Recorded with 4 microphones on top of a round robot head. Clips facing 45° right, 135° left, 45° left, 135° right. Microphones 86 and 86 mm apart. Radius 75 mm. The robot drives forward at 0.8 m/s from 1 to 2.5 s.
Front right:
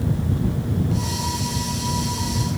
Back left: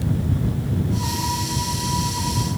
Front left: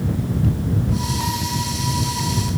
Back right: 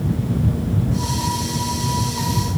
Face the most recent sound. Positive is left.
No sound to turn to.